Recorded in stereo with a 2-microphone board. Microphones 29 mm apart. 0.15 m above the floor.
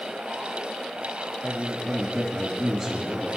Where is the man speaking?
Centre (ahead or behind), 4 m.